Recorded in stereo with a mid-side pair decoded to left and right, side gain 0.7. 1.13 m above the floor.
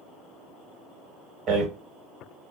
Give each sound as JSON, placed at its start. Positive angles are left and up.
{"t": 1.5, "sound": "a rattle", "azimuth_deg": -40, "distance_m": 1.3}